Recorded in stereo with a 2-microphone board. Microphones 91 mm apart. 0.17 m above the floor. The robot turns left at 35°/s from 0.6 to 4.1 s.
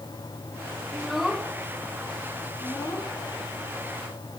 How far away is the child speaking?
About 1.1 m.